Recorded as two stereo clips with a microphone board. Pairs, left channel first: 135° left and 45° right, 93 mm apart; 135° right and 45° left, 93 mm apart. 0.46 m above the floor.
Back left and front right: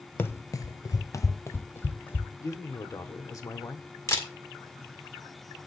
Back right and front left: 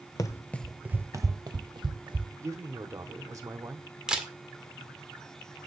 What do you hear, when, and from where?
0.2 s running footsteps: 165° right, 0.6 m; by 2.3 s 70° left, 1.4 m
2.4 s a man speaking: 90° left, 1.3 m
4.1 s a camera shutter: 120° left, 1.6 m